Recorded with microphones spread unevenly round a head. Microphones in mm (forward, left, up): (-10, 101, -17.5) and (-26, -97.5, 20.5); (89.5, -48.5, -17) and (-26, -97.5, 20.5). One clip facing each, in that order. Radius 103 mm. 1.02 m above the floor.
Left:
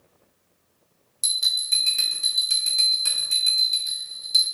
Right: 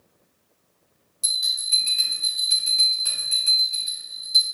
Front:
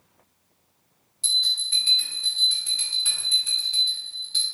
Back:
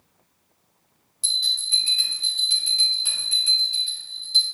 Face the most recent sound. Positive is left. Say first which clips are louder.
# left 1 dB, even
turn(degrees=160)